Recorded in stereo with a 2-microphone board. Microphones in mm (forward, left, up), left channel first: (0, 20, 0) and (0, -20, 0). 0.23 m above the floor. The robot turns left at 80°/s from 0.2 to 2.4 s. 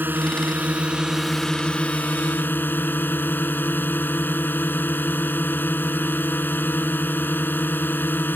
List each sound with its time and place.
0.0 s a drone: 90° right; by 8.4 s 95° left